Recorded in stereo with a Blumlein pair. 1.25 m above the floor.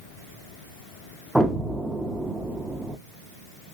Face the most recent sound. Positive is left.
turn(degrees=-5)